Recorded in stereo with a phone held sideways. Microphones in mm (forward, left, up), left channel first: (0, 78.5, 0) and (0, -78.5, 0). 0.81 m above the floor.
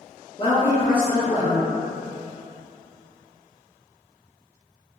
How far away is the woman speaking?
About 0.5 m.